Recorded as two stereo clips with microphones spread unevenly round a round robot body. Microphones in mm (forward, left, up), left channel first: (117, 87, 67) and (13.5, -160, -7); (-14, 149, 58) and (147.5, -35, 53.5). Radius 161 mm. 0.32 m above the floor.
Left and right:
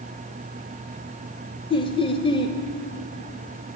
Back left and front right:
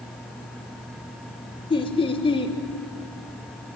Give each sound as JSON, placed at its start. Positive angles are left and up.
{"t": 1.7, "sound": "laughter", "azimuth_deg": 150, "distance_m": 0.9}